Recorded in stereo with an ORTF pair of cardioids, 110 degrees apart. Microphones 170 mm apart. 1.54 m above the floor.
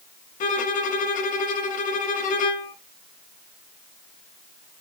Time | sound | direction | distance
0.4 | a violin | 50° left | 1.0 m